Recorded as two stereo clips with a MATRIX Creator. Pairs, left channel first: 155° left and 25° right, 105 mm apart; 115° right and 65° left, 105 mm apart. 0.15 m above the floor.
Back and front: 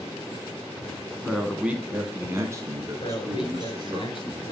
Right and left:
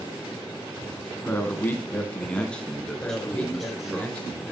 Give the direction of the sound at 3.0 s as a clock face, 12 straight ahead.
6 o'clock.